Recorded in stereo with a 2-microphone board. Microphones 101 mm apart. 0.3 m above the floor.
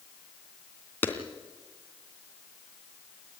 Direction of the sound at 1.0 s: 20° left (ahead or behind).